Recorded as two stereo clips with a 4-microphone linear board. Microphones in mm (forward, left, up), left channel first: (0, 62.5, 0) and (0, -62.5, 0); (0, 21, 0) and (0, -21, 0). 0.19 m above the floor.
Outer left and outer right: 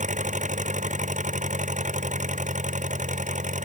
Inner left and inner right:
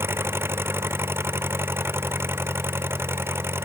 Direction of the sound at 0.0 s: 85° right.